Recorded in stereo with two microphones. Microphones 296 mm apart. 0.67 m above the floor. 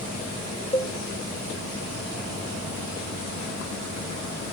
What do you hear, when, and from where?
0.7 s a cowbell: 20° left (ahead or behind), 0.9 m